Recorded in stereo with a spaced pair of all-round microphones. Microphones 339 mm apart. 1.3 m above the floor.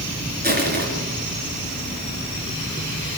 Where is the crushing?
30° right (ahead or behind), 4.5 m.